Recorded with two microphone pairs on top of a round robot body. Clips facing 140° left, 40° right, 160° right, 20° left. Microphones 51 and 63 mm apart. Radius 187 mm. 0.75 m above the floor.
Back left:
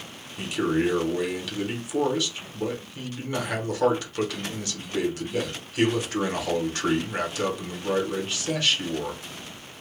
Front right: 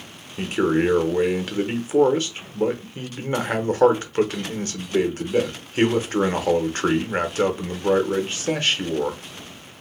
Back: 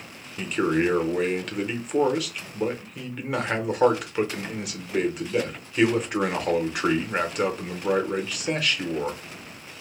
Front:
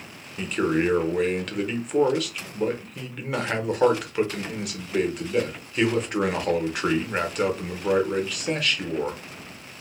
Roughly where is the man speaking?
Right.